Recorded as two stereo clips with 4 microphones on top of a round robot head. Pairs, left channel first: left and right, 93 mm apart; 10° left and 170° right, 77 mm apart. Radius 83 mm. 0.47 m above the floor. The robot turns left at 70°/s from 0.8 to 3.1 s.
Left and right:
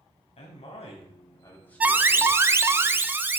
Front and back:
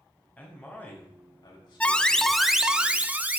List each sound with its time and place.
0.4 s a man speaking: 80° left, 3.5 m; by 2.4 s 30° right, 3.5 m
1.8 s an alarm: 40° right, 0.7 m; by 3.4 s 130° right, 0.7 m